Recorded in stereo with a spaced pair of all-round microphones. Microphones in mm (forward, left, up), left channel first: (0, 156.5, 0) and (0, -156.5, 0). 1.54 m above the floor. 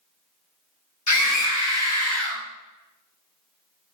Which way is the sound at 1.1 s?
65° left (ahead or behind).